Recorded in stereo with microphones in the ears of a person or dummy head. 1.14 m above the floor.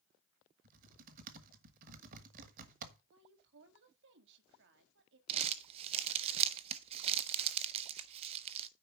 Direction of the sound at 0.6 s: 45° right (ahead or behind).